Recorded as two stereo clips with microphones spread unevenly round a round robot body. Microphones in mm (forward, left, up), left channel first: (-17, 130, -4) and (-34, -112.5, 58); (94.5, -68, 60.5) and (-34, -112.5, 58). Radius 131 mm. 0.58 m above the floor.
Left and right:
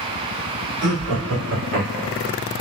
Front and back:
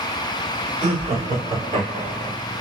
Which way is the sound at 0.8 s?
135° right.